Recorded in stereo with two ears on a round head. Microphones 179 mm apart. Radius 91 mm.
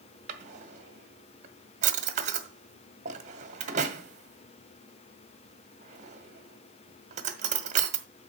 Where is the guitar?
No guitar in this recording.